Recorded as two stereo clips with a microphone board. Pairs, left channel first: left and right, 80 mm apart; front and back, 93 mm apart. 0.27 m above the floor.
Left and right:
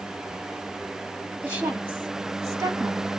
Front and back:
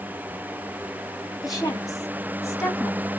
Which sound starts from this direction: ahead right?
A woman speaking, at 1.4 s.